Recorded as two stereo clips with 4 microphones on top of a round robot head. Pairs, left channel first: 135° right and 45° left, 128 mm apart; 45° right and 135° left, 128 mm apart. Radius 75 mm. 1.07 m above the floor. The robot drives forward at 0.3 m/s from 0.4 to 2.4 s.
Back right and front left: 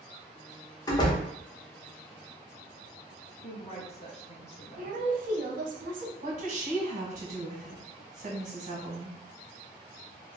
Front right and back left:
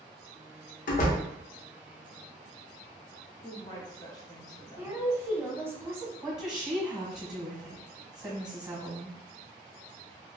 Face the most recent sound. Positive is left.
turn(degrees=75)